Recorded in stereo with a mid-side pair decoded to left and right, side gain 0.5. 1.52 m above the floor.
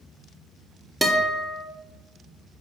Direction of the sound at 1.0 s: 15° right.